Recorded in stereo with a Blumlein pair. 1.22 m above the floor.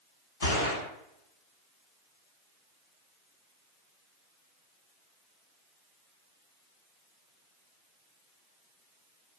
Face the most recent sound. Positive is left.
turn(degrees=65)